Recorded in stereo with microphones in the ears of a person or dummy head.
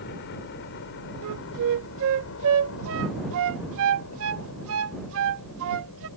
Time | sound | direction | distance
0.0 | a helicopter | 55° left (ahead or behind) | ?
1.2 | a flute | 75° right (ahead or behind) | ?